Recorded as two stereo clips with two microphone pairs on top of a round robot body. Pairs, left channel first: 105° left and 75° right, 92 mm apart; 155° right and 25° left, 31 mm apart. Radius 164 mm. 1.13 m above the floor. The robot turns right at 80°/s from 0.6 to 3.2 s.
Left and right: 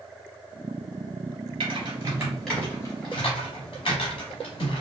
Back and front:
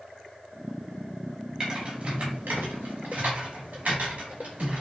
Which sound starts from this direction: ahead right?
Typing on a keyboard, at 1.6 s.